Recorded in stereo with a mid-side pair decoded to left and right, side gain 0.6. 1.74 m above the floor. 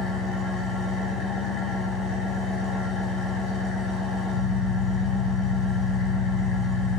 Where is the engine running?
65° left, 1.2 m.